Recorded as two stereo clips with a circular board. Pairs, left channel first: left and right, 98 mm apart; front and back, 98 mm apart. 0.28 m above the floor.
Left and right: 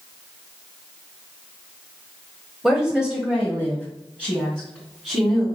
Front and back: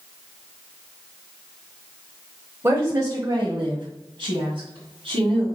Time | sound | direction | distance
2.6 | a woman speaking | 165° right | 1.4 m